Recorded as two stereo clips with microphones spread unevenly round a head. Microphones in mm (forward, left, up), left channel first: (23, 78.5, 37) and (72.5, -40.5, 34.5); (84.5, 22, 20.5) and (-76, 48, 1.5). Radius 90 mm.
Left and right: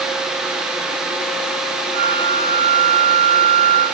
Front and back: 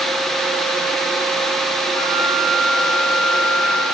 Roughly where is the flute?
Ahead right.